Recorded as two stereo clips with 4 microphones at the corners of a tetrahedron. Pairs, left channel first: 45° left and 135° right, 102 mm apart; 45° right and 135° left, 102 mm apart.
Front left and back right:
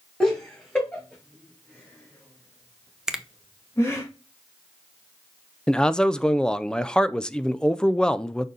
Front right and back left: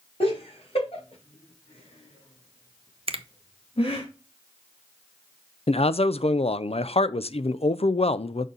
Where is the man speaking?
35° right, 0.5 m.